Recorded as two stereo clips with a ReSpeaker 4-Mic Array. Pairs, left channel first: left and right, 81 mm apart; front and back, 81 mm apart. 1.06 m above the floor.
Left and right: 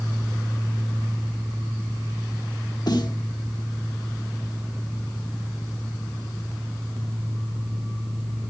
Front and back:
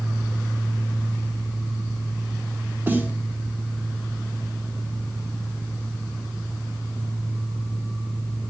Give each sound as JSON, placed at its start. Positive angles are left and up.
{"t": 2.9, "sound": "a snare drum", "azimuth_deg": 115, "distance_m": 1.4}